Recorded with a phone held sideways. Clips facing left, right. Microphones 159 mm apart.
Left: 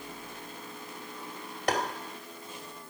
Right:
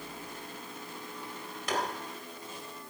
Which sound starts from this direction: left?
Tapping, at 1.7 s.